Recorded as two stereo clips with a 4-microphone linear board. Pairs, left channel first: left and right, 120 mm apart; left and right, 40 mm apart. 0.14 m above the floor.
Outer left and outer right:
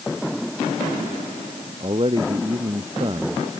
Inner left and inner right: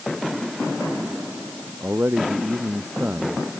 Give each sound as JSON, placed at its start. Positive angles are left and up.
{"t": 1.8, "sound": "a man speaking", "side_deg": -50}